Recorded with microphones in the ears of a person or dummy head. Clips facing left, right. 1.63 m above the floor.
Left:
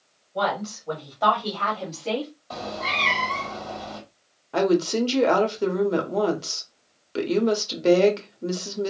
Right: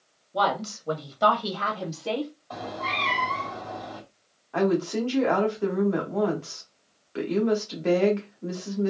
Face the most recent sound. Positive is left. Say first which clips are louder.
# left 3 dB
turn(degrees=55)  # may be behind; listen again after turning